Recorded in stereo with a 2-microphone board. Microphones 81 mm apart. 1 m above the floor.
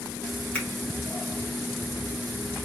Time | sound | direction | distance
0.5 | a finger snap | 15° left (ahead or behind) | 1.8 m